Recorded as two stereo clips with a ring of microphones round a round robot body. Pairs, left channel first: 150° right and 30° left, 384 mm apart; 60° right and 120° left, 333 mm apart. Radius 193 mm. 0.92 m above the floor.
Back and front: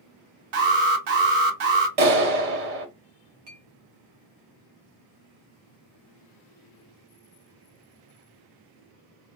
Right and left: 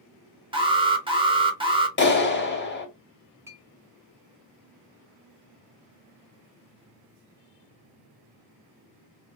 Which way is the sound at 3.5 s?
35° left.